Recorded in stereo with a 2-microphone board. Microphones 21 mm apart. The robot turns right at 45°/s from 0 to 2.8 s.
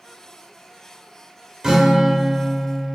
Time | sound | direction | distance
1.6 | a guitar | 40° right | 0.9 m